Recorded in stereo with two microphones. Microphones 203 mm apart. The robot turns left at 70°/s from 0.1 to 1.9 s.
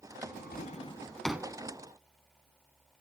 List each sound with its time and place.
0.2 s a drawer: 65° left (ahead or behind), 1.1 m; by 1.5 s 15° right (ahead or behind), 1.1 m